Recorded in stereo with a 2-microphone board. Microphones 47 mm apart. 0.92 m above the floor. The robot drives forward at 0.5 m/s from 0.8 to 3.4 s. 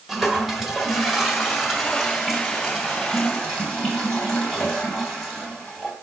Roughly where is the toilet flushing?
Centre.